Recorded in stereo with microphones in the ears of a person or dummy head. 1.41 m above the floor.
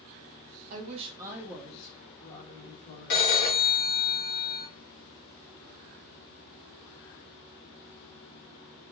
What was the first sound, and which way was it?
A woman speaking, 40° right (ahead or behind).